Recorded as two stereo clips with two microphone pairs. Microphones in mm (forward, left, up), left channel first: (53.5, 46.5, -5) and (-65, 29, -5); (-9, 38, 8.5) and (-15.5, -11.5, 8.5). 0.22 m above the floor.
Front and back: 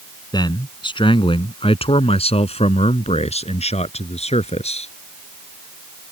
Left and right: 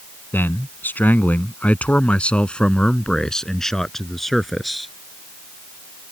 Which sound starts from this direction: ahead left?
A man speaking, at 0.3 s.